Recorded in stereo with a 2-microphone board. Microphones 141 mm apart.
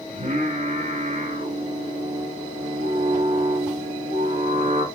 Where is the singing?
70° right (ahead or behind), 3 m.